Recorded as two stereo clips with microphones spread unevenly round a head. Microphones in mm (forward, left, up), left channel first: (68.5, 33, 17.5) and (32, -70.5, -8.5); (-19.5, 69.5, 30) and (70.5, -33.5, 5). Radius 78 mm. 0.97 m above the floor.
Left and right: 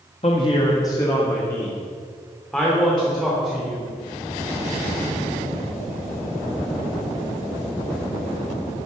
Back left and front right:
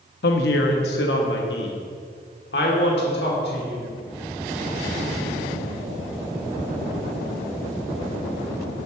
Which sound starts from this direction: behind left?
A woman speaking, at 0.2 s.